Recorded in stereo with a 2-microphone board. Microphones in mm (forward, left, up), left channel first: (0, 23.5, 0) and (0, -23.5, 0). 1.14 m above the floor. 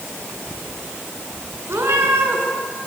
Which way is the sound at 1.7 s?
70° right (ahead or behind).